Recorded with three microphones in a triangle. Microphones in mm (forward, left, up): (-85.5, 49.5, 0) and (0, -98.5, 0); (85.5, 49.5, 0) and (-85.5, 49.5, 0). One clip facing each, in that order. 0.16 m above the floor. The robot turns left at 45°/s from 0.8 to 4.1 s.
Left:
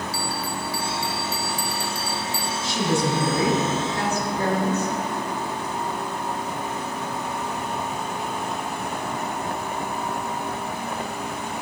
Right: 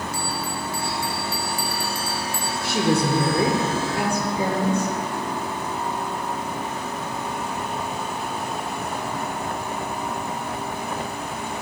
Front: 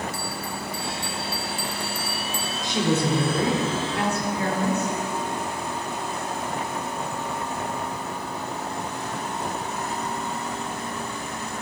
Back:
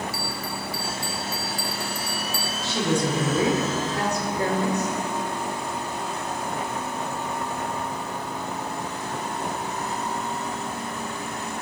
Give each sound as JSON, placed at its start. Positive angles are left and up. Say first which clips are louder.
{"t": 0.1, "sound": "a bell", "louder": "even, even", "azimuth_deg": -30, "distance_m": 1.5}
{"t": 2.6, "sound": "a woman speaking", "louder": "right 3 dB, front 1 dB", "azimuth_deg": -70, "distance_m": 3.5}